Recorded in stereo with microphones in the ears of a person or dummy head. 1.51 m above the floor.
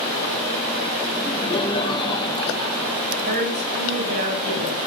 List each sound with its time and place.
1.1 s laughter: 30° left (ahead or behind), 5 m
3.2 s a woman speaking: 55° right (ahead or behind), 8.5 m